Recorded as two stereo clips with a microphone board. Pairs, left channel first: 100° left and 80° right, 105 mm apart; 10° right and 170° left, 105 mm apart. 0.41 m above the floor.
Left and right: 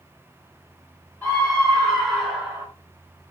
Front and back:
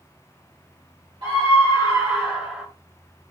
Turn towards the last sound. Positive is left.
turn(degrees=-105)